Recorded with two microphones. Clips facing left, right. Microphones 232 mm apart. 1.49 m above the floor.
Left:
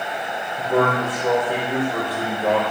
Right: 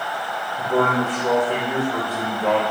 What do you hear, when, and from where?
0.6 s a man speaking: 5° left (ahead or behind), 4.5 m